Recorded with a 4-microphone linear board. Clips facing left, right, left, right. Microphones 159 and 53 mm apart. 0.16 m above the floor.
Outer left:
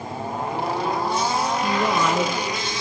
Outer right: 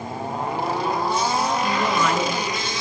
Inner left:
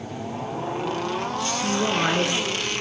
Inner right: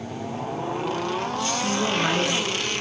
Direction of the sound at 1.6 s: 15° left (ahead or behind).